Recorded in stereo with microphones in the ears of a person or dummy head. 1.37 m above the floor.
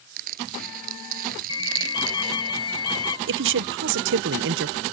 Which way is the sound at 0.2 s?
45° right (ahead or behind).